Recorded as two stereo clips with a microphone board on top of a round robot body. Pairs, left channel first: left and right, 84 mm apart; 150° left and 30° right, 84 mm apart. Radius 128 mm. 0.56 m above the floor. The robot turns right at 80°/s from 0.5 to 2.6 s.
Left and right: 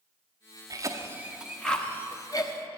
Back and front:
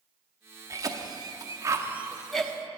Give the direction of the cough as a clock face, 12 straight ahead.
2 o'clock.